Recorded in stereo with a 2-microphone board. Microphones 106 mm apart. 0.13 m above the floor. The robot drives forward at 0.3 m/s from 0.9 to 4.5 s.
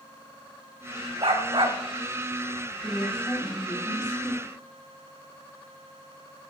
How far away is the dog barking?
About 3 m.